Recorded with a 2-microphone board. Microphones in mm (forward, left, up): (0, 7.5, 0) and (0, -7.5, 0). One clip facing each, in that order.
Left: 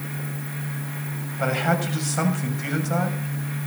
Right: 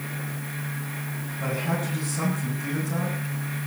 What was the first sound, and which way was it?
A man speaking, 80° left.